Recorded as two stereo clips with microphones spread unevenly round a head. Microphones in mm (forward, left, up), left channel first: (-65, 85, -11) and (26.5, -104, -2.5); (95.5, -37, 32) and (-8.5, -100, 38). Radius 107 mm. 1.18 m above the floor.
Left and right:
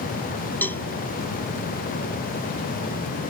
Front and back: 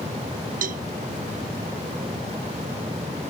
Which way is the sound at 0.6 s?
165° right.